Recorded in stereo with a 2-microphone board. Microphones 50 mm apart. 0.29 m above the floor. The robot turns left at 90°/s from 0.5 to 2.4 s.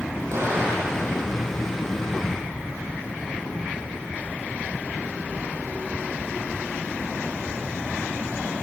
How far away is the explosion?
About 7.5 m.